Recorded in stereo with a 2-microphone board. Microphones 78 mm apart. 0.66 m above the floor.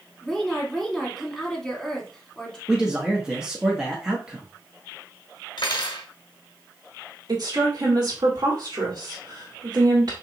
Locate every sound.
0.2 s a woman speaking: centre (ahead or behind), 2 m
2.7 s a man speaking: 10° right (ahead or behind), 1.0 m
5.6 s cutlery clinking: 75° left (ahead or behind), 1.0 m
7.3 s a woman speaking: 55° right (ahead or behind), 1.6 m